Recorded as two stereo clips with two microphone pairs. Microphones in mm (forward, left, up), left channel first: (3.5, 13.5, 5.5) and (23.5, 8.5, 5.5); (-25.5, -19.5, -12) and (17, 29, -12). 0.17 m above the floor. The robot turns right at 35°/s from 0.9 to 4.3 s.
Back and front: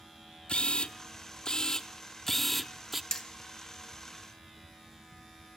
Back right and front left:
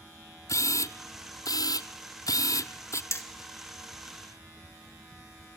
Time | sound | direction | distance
0.5 | a camera shutter | 165° right | 0.8 m
3.1 | hammering | 140° right | 1.5 m